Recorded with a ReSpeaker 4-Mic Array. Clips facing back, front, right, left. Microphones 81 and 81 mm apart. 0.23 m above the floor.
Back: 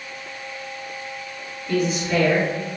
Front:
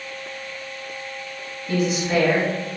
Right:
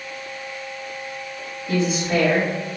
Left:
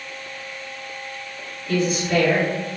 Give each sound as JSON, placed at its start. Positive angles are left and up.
{"t": 1.7, "sound": "a woman speaking", "azimuth_deg": -50, "distance_m": 1.7}